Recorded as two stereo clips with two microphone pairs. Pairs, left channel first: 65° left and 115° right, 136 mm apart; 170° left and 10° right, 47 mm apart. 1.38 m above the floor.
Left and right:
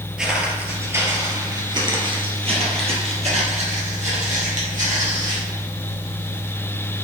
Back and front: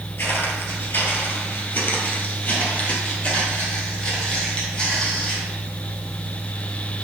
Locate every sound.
0.2 s footsteps: 165° left, 1.9 m; by 5.4 s 120° right, 3.5 m